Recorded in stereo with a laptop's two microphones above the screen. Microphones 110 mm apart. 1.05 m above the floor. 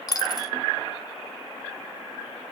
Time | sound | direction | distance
0.1 | a dropped coin | 35° left (ahead or behind) | 0.6 m